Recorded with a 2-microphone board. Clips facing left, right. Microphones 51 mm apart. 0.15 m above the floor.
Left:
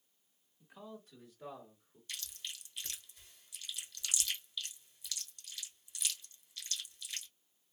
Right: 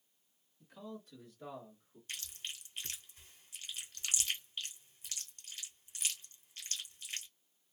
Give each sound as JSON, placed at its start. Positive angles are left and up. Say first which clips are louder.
{"t": 0.6, "sound": "a man speaking", "louder": "right 2 dB", "side_deg": 15, "distance_m": 1.6}
{"t": 2.1, "sound": "chewing", "louder": "right 1 dB", "side_deg": -40, "distance_m": 1.7}